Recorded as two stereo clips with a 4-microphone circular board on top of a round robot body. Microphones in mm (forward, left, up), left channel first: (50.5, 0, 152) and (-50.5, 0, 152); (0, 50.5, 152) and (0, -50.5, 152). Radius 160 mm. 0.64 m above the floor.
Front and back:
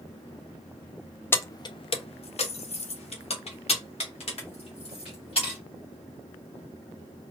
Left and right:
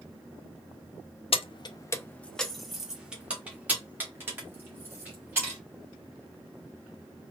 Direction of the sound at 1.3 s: 70° left.